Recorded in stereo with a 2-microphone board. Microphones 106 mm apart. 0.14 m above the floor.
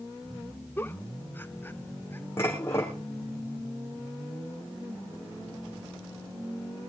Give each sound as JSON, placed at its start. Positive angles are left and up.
{"t": 0.8, "sound": "a giggle", "side_deg": 20, "distance_m": 0.7}
{"t": 2.4, "sound": "dishes clattering", "side_deg": 25, "distance_m": 5.5}